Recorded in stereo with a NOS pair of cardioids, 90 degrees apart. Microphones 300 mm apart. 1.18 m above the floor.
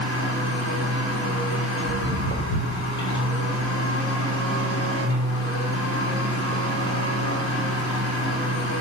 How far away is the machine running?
About 3.5 m.